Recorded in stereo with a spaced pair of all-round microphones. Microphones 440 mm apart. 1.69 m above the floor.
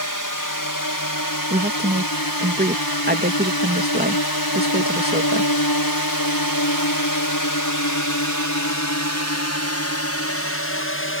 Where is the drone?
45° left (ahead or behind); by 11.2 s 25° left (ahead or behind).